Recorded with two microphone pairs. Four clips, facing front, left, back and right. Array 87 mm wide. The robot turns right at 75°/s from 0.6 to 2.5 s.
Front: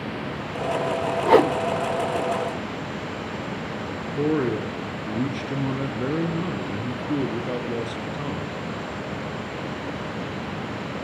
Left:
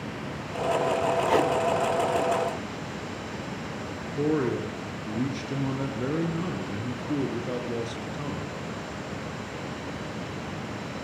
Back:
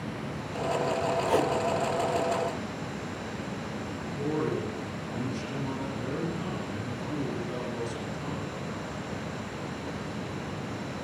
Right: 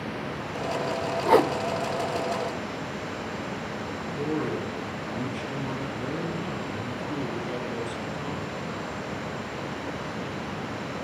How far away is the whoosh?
About 0.5 m.